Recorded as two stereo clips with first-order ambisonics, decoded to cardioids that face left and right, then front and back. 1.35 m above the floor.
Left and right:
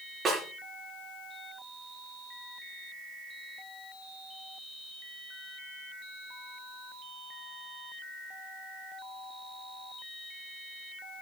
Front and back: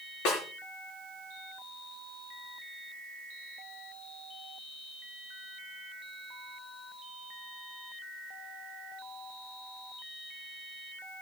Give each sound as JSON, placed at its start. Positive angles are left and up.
{"t": 0.2, "sound": "a snare drum", "azimuth_deg": -20, "distance_m": 5.0}